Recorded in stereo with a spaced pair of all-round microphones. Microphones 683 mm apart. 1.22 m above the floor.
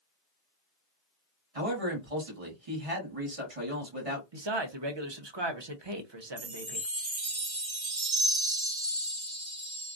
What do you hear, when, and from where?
1.6 s a man speaking: 50° right (ahead or behind), 1.3 m
4.3 s a man speaking: 40° right (ahead or behind), 0.7 m
6.4 s a chime: 40° right (ahead or behind), 0.8 m